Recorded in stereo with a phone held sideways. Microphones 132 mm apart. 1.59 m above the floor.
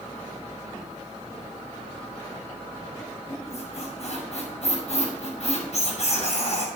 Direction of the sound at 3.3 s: 55° left (ahead or behind).